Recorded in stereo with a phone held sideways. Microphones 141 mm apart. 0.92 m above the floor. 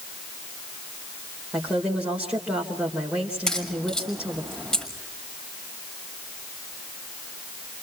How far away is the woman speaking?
About 3 m.